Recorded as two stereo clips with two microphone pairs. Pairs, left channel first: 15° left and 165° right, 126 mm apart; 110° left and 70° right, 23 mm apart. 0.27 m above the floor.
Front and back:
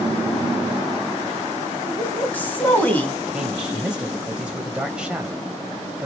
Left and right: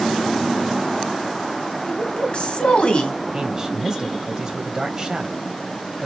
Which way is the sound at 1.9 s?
90° left.